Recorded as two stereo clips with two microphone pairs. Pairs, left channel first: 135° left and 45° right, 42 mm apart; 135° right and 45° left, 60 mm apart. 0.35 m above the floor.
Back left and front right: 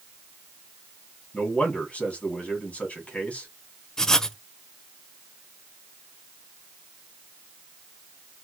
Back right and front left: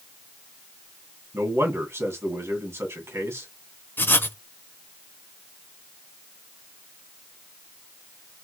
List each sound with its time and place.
1.3 s a man speaking: 80° left, 2 m
4.0 s writing: 155° right, 0.5 m